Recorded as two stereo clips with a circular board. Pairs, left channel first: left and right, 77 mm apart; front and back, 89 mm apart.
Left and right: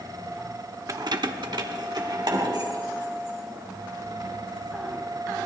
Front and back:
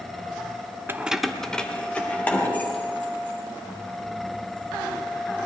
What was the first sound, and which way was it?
Keys jangling, 125° right.